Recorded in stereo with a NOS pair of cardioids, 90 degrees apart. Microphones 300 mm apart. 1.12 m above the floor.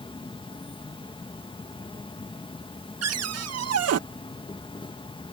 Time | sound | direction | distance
0.0 | an insect | 15° left | ?
3.0 | a cupboard door | 50° right | ?